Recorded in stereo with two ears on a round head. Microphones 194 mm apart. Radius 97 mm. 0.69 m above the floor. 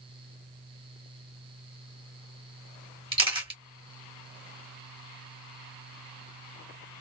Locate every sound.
3.1 s a camera shutter: 25° right (ahead or behind), 2 m